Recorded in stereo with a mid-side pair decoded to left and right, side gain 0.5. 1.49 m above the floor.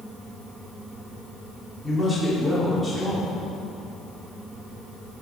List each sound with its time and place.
0.0 s a fan: 25° right, 1.6 m
1.8 s a man speaking: 10° right, 4 m